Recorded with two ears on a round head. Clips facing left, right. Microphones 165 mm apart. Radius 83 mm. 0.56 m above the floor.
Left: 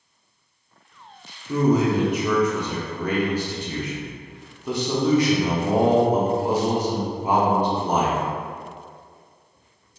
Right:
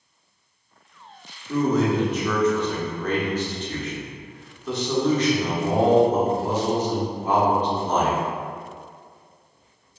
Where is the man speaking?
10° left (ahead or behind), 0.6 m.